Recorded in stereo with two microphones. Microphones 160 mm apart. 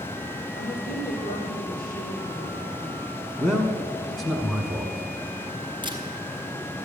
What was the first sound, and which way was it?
A woman speaking, 75° left (ahead or behind).